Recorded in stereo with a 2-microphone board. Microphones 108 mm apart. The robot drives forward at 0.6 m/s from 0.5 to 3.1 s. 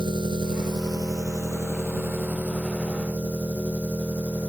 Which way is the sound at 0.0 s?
45° right (ahead or behind).